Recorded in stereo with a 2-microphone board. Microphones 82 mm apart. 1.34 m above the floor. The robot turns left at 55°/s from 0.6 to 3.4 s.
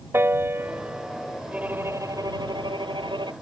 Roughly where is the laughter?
I don't hear laughter.